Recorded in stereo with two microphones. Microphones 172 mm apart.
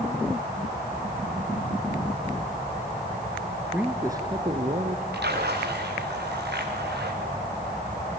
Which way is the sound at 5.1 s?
80° right.